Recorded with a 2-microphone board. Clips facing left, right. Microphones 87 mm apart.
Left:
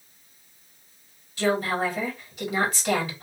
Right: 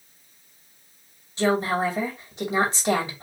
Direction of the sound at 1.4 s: 30° right (ahead or behind).